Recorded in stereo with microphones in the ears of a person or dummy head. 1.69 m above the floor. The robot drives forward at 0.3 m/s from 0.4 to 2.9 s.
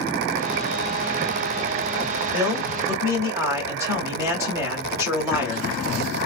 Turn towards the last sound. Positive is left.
turn(degrees=-20)  # may be behind; listen again after turning